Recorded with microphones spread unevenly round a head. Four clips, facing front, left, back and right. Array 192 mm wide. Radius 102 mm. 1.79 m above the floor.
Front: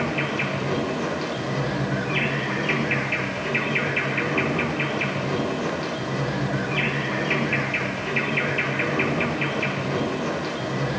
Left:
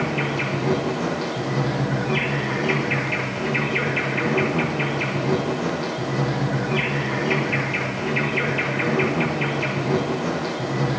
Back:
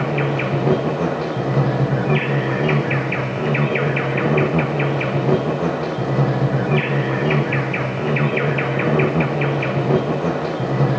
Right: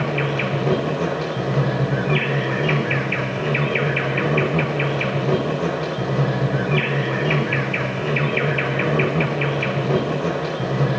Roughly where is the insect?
Behind.